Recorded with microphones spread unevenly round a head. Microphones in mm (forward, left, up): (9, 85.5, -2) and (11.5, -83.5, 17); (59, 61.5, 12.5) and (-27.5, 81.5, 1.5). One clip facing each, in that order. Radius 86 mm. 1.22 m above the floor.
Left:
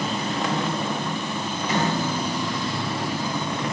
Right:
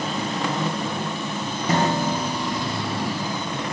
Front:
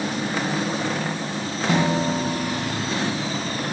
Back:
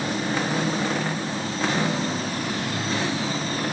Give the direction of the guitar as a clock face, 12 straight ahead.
1 o'clock.